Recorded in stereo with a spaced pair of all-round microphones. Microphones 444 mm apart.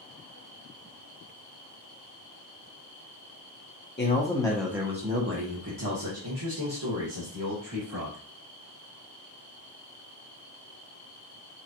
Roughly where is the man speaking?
Left.